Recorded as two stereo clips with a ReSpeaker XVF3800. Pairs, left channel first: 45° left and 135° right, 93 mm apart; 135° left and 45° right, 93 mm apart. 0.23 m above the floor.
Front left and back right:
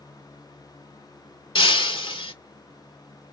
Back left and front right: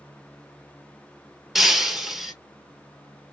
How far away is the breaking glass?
About 0.7 m.